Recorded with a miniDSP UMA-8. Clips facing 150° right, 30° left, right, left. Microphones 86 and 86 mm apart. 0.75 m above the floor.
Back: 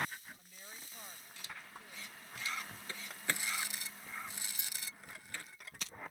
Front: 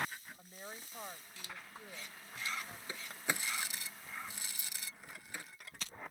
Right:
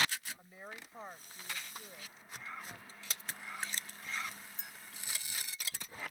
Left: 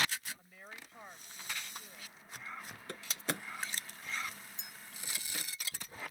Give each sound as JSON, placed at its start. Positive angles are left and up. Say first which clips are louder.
{"t": 0.4, "sound": "a woman speaking", "louder": "front 6 dB, right 3 dB", "azimuth_deg": -20}
{"t": 2.9, "sound": "a door slam", "louder": "front 1 dB, left 7 dB", "azimuth_deg": 105}
{"t": 4.6, "sound": "a clink", "louder": "back 2 dB, right 2 dB", "azimuth_deg": -135}